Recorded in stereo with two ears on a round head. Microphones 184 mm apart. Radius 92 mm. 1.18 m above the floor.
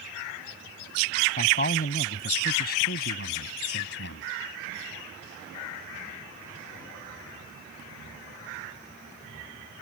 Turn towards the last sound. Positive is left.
turn(degrees=60)  # may be behind; listen again after turning